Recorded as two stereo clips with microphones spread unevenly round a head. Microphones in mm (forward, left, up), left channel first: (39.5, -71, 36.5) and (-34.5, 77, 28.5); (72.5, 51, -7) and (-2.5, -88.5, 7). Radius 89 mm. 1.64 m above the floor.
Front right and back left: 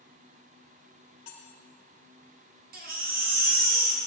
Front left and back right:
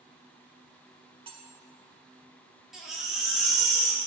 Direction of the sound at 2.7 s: 155° left.